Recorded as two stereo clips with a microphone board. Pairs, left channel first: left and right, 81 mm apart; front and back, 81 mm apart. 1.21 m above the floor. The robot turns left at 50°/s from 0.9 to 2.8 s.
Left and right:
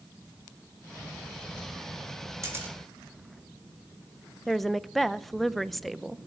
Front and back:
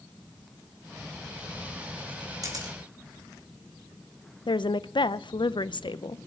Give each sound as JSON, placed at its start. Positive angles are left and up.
{"t": 2.4, "sound": "a camera shutter", "azimuth_deg": -140, "distance_m": 3.0}
{"t": 4.5, "sound": "a woman speaking", "azimuth_deg": 0, "distance_m": 0.6}